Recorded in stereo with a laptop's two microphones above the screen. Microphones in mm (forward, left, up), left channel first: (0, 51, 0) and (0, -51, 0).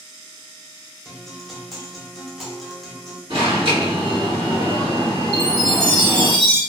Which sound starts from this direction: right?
An alarm, at 3.3 s.